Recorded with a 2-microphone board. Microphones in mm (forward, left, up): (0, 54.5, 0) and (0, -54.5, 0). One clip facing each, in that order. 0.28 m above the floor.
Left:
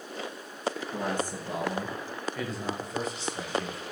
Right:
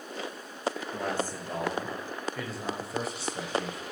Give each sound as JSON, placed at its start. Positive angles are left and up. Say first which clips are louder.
{"t": 0.9, "sound": "a man speaking", "louder": "left 1 dB", "side_deg": 20, "distance_m": 4.5}